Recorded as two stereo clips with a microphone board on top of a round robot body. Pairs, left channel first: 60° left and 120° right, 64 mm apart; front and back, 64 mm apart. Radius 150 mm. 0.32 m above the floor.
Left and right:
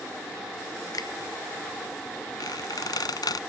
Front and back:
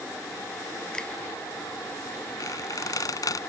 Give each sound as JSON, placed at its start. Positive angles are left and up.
{"t": 0.9, "sound": "a finger snap", "azimuth_deg": 80}
{"t": 2.4, "sound": "a squeak", "azimuth_deg": 35}